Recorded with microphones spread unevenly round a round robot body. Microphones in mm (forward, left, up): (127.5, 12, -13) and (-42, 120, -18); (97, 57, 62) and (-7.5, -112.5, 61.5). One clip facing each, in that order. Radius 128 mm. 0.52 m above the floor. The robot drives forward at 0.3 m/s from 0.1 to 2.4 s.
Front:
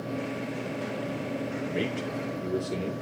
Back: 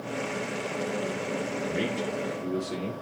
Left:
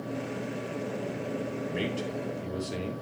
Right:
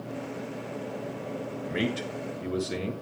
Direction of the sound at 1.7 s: 125° right.